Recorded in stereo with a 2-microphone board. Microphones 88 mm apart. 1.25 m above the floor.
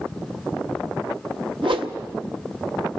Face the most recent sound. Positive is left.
turn(degrees=-75)  # may be behind; listen again after turning